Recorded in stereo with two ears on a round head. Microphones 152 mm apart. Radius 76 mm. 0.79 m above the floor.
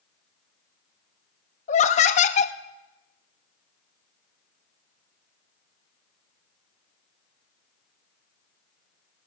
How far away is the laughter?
About 0.9 m.